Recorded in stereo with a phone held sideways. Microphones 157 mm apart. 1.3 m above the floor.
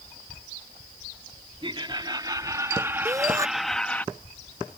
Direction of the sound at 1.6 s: 30° right (ahead or behind).